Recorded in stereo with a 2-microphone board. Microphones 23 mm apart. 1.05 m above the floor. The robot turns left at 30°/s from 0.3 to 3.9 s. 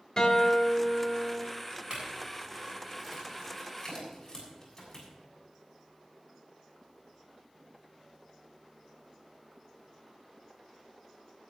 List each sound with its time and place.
0.2 s a guitar: 25° left, 3.5 m; by 1.4 s 10° right, 3.5 m
1.9 s a clink: 35° right (ahead or behind), 7 m; by 5.1 s 25° left (ahead or behind), 7 m